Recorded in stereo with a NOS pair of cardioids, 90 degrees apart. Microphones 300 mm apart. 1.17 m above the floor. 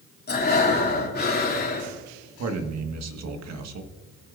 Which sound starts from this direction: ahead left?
Breathing, at 0.3 s.